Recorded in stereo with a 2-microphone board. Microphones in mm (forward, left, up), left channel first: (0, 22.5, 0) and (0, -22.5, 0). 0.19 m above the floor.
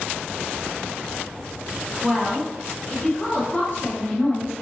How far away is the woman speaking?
About 1.3 m.